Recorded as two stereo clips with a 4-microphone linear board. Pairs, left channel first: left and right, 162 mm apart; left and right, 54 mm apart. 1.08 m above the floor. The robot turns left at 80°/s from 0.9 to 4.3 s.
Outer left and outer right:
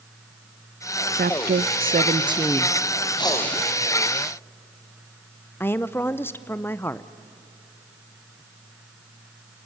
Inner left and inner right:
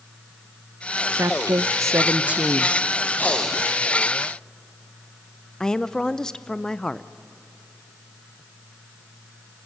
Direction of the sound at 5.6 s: 15° left (ahead or behind).